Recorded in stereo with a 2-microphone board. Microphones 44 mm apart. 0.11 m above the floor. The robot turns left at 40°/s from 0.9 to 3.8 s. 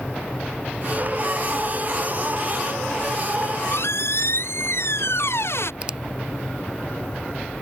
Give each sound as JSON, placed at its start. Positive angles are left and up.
{"t": 3.4, "sound": "a squeak", "side_deg": 80}
{"t": 5.8, "sound": "a finger snap", "side_deg": -25}